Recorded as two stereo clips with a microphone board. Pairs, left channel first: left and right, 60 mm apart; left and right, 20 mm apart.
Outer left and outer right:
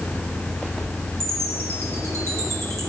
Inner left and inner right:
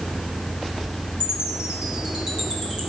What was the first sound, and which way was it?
A chime, 50° right (ahead or behind).